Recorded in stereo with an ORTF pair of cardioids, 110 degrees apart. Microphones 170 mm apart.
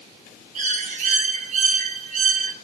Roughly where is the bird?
Ahead right.